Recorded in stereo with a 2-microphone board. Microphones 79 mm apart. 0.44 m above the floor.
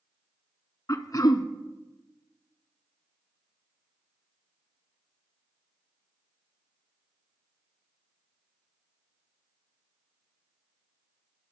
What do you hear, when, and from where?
0.9 s throat clearing: 45° left (ahead or behind), 0.6 m